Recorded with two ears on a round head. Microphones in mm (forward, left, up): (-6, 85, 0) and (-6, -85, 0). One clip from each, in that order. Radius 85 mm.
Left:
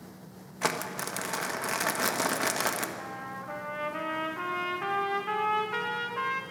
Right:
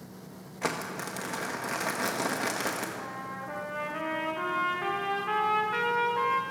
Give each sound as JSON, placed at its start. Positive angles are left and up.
{"t": 0.6, "sound": "crumpling", "side_deg": 25, "distance_m": 1.5}
{"t": 3.0, "sound": "a trumpet", "side_deg": 15, "distance_m": 2.5}